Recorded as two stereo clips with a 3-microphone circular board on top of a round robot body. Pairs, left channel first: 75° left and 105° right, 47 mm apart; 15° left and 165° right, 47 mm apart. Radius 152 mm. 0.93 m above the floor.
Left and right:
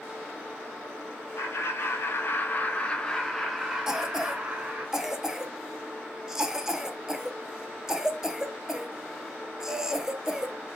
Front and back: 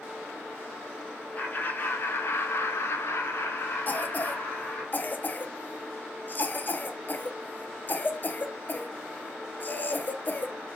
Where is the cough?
30° right, 0.6 m.